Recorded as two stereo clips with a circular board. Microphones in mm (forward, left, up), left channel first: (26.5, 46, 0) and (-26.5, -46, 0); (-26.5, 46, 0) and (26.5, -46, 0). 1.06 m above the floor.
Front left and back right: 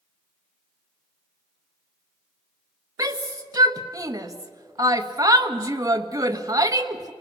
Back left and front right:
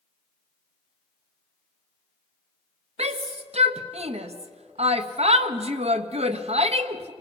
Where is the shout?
65° right, 1.2 m.